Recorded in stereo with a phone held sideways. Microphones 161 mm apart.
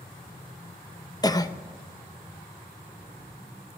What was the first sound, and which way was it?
A cough, 25° left (ahead or behind).